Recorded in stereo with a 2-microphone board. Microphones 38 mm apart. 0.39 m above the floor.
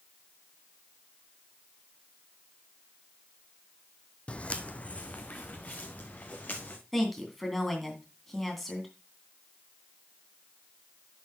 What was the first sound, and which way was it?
Footsteps, 30° left (ahead or behind).